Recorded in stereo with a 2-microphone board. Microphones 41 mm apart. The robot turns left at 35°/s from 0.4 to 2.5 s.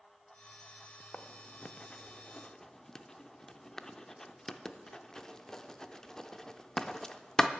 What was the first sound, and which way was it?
Writing, 30° left (ahead or behind).